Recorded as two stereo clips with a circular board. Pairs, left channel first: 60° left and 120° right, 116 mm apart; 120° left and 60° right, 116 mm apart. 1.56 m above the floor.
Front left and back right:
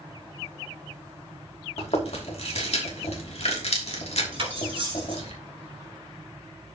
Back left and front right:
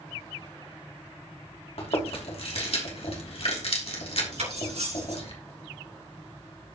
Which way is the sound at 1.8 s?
90° left.